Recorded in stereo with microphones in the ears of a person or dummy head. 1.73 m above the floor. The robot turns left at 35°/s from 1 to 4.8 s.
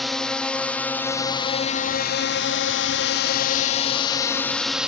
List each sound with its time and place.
0.0 s a drone: 5° left (ahead or behind); by 4.9 s 5° right (ahead or behind)